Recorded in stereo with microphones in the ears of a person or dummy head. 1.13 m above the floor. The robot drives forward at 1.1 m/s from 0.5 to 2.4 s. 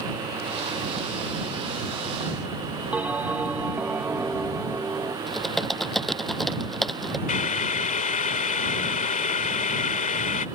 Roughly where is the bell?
Centre.